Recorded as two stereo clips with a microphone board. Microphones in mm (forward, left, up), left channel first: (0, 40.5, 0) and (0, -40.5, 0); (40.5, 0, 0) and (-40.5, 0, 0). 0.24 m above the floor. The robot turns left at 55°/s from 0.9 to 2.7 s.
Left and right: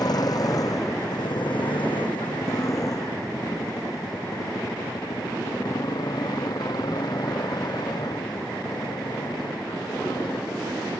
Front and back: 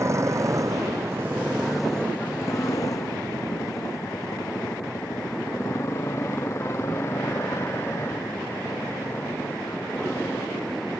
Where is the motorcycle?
125° left; by 11.0 s 65° left.